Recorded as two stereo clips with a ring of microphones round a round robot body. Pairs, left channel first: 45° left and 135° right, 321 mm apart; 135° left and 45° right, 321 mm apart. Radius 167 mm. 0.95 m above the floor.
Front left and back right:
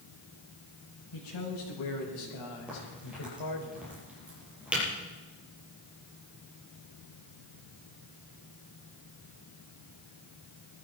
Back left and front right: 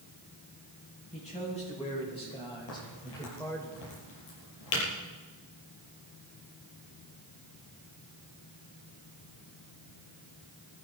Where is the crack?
140° left, 7 m.